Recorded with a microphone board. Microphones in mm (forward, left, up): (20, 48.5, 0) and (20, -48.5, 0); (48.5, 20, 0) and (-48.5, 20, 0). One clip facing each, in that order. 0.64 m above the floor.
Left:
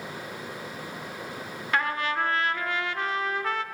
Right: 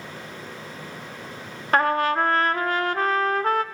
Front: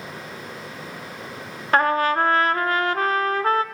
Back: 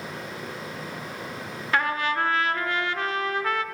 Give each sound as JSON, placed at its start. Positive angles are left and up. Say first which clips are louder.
{"t": 1.7, "sound": "a trumpet", "louder": "right 7 dB, front 6 dB", "azimuth_deg": -45, "distance_m": 0.7}